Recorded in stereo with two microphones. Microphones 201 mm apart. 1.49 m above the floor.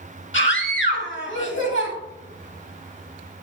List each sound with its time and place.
0.3 s a scream: 70° left (ahead or behind), 2 m